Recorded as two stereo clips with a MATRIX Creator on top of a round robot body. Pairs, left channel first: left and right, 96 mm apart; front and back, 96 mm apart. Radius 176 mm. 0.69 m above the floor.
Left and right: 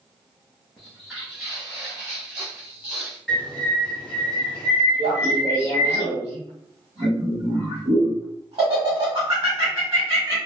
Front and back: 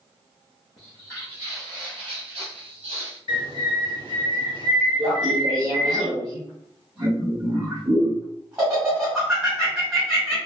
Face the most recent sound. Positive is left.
turn(degrees=-110)